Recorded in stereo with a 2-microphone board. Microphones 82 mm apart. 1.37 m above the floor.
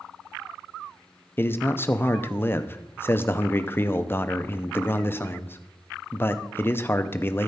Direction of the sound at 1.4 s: 30° left (ahead or behind).